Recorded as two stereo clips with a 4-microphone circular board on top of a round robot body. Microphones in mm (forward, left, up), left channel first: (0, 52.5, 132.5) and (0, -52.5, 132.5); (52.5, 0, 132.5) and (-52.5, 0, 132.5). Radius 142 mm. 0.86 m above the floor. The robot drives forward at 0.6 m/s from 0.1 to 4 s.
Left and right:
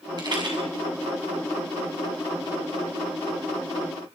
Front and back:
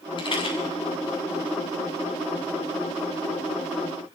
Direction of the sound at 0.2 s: 40° right.